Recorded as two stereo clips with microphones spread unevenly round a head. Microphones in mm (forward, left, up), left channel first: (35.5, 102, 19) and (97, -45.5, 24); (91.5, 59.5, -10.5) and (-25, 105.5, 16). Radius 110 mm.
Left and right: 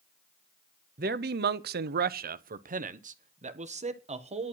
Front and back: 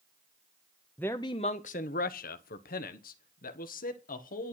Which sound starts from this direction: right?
A man speaking, at 1.0 s.